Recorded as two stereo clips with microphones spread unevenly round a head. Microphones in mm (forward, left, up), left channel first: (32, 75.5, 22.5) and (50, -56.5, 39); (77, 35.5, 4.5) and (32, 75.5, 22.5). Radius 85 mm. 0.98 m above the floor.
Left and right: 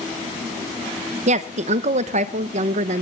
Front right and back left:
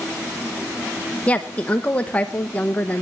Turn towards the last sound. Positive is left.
turn(degrees=-90)